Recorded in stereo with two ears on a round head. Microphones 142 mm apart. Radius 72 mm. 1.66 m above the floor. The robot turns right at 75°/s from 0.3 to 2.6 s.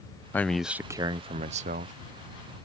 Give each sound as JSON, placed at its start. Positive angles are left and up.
{"t": 0.3, "sound": "a man speaking", "azimuth_deg": 165}